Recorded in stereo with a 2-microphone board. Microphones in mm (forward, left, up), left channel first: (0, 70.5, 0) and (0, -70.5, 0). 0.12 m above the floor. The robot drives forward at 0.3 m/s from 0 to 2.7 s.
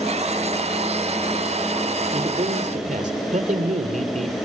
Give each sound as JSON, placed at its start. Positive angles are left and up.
{"t": 2.1, "sound": "a man speaking", "side_deg": -65, "distance_m": 3.0}